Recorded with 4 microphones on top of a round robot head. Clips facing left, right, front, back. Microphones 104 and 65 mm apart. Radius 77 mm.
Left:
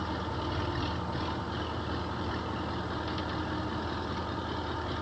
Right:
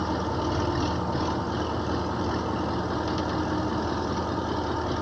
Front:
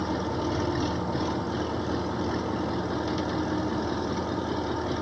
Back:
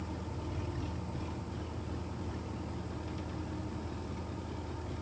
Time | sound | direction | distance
0.0 | an engine running | 25° right | ?